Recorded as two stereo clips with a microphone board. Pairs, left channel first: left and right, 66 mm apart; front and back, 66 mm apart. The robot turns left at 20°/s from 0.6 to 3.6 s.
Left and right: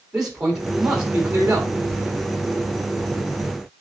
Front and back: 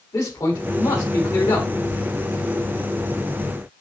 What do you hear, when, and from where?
0.1 s a man speaking: 10° right, 4 m; by 1.7 s 30° right, 4 m